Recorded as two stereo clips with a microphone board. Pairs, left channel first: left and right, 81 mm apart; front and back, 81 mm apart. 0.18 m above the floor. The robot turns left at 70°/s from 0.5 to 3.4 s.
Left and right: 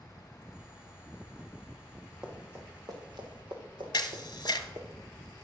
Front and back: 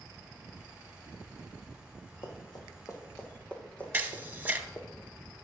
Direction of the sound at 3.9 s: 120° left.